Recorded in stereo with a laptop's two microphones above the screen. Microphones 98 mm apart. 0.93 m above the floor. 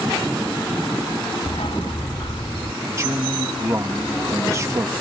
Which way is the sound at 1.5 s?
75° left (ahead or behind).